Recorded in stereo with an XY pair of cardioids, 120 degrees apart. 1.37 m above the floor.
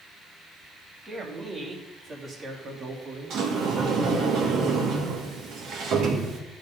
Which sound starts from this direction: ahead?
A man speaking, at 1.1 s.